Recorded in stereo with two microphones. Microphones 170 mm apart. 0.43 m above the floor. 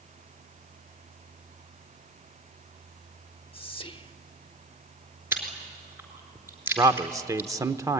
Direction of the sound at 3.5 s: 30° left (ahead or behind).